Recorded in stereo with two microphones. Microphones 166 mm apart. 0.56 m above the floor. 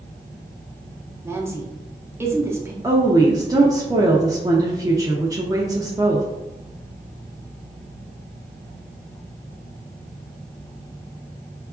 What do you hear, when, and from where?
1.2 s a woman speaking: 15° right (ahead or behind), 0.8 m
2.8 s a woman speaking: 20° right (ahead or behind), 0.6 m